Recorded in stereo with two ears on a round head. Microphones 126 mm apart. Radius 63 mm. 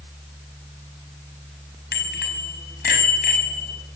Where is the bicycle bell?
85° left, 5.5 m; by 3.8 s 70° left (ahead or behind), 5.5 m.